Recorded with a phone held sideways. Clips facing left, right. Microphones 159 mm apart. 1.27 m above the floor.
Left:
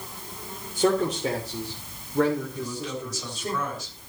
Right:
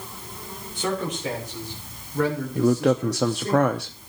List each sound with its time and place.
0.8 s a man speaking: 40° left (ahead or behind), 3 m; by 3.5 s 10° left (ahead or behind), 4 m
2.5 s a man speaking: 75° right (ahead or behind), 0.6 m